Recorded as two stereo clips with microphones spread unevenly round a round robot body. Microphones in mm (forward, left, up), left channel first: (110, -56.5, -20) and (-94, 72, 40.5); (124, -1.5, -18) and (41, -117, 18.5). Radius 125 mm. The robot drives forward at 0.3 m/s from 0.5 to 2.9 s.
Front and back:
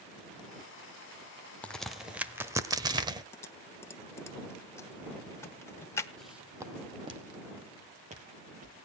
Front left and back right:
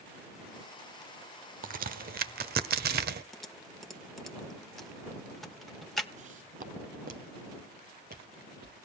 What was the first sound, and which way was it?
A crack, 105° right.